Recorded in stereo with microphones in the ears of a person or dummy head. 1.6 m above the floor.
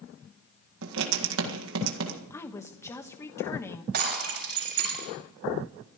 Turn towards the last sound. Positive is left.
turn(degrees=-50)  # may be behind; listen again after turning